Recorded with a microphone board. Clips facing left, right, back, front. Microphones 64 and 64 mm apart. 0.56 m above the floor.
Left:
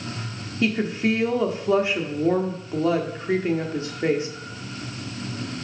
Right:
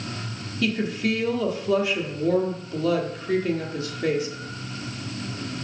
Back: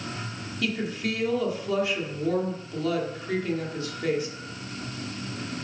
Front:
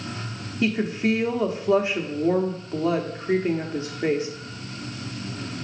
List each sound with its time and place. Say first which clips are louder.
0.6 s a woman speaking: left 2 dB, front 6 dB; 45° left, 1.3 m